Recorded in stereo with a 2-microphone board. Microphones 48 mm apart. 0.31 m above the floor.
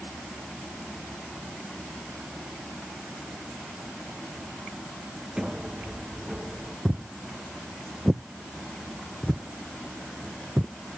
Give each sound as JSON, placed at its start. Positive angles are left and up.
{"t": 5.4, "sound": "a sliding door", "side_deg": -15}
{"t": 6.8, "sound": "footsteps", "side_deg": -25}